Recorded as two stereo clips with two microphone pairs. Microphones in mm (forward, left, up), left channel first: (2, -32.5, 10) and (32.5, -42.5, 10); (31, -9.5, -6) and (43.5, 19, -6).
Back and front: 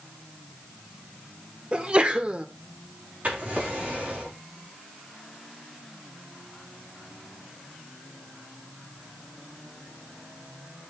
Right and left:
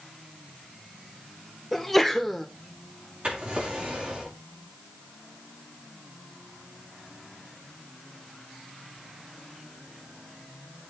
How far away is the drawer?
About 5.5 m.